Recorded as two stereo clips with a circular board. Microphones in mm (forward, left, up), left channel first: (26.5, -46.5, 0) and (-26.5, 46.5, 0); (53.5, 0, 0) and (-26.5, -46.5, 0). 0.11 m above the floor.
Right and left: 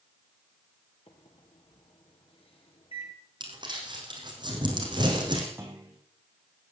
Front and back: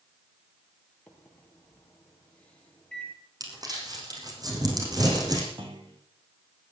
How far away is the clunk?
About 4 m.